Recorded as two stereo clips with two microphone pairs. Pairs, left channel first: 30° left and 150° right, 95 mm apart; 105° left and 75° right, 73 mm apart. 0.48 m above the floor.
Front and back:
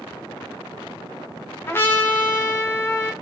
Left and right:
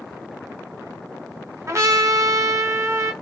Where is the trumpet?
30° right, 0.6 m.